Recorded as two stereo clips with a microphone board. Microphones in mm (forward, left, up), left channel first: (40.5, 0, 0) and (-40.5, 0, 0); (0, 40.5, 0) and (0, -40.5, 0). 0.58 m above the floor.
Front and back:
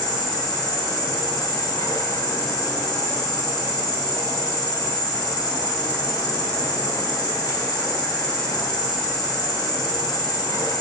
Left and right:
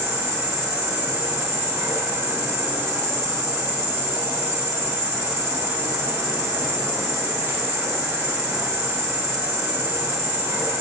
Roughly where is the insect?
Ahead right.